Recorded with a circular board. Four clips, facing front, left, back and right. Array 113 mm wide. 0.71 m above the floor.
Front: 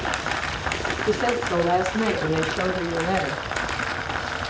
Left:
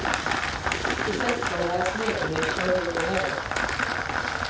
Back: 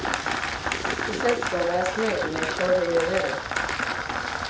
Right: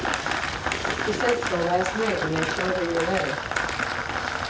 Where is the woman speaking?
5° right, 8.5 m; by 3.4 s 15° right, 8.5 m.